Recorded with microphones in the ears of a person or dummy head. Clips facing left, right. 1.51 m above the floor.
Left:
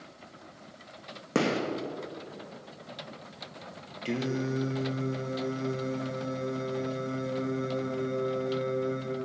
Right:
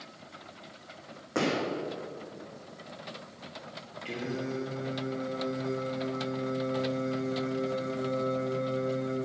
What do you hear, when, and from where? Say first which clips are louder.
1.4 s a gunshot: left 2 dB; 55° left (ahead or behind), 1.7 m
4.0 s singing: left 4 dB; 80° left, 1.3 m